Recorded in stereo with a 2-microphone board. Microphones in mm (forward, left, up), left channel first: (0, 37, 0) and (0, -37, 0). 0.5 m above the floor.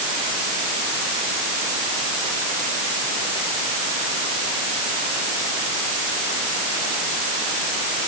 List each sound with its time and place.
Only background noise.